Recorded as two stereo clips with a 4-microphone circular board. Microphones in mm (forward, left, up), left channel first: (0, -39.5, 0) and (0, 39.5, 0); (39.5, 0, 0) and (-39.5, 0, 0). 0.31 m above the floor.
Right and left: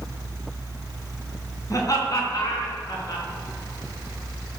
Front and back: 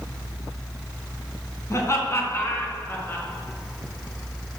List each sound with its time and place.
1.7 s laughter: 50° right, 3 m; by 3.2 s 60° right, 4 m